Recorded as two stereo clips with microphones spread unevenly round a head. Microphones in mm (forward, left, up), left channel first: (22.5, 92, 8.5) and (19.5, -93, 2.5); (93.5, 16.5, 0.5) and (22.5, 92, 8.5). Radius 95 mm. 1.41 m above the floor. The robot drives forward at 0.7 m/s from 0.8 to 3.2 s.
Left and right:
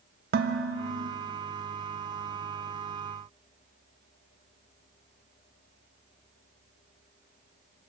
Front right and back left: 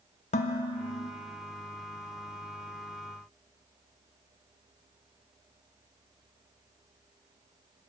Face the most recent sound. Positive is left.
turn(degrees=-130)